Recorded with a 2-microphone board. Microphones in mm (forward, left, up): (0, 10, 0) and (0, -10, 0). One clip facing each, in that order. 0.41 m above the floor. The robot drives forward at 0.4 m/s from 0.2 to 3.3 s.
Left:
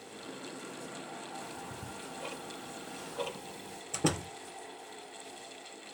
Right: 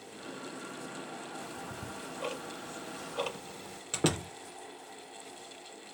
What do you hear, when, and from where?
1.4 s ticking: 55° right (ahead or behind), 1.3 m; by 3.8 s 45° right (ahead or behind), 1.5 m
3.9 s a door slam: 70° right (ahead or behind), 4.5 m